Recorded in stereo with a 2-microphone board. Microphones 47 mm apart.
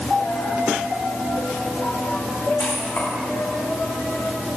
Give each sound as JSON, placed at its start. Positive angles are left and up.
{"t": 0.2, "sound": "a dropped coin", "side_deg": 80, "distance_m": 3.0}